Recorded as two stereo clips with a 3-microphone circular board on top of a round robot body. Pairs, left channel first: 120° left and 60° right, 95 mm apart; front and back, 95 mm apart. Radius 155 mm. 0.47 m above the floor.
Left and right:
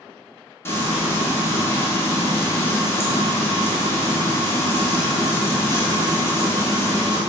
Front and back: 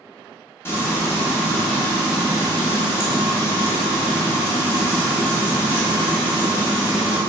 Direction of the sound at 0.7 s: 60° left.